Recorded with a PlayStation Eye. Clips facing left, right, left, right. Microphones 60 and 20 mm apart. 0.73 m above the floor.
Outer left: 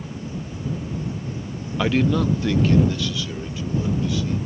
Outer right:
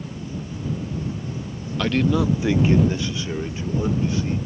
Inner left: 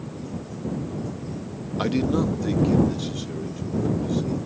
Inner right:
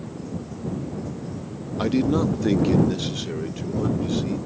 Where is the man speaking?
15° left (ahead or behind); by 4.4 s 35° right (ahead or behind).